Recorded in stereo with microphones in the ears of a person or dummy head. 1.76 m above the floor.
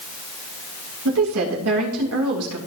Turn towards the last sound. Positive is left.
turn(degrees=-85)